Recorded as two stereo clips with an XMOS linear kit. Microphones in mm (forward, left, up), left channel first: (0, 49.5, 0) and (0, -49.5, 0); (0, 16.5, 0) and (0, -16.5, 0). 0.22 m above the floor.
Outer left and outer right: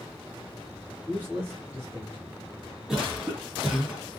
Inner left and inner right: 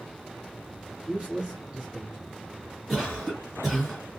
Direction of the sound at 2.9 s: 5° right (ahead or behind).